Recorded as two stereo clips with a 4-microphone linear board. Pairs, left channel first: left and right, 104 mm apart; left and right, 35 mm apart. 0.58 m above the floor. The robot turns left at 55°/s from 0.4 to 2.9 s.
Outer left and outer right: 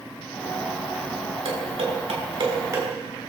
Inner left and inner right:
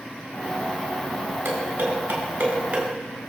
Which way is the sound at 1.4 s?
75° right (ahead or behind).